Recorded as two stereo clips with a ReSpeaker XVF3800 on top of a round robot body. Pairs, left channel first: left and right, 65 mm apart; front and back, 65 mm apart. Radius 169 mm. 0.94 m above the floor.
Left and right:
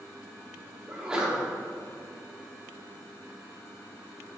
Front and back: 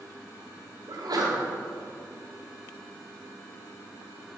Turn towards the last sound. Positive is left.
turn(degrees=-165)